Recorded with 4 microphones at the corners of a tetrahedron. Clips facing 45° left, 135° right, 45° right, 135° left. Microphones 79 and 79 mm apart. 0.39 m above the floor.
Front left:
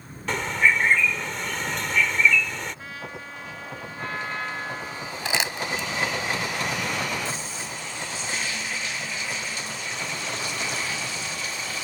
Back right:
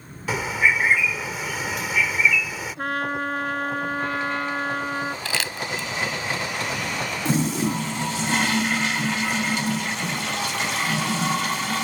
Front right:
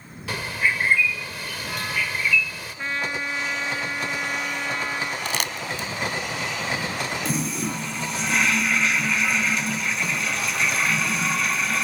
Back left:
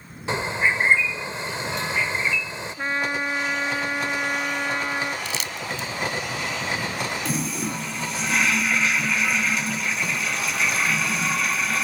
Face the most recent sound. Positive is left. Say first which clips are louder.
# back right 11 dB, even
turn(degrees=-135)